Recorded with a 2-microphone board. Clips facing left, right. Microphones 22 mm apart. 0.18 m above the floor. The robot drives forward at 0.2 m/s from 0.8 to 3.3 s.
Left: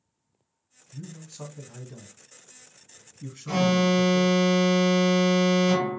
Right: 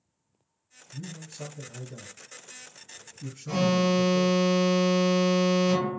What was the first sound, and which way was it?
A man speaking, 30° left (ahead or behind).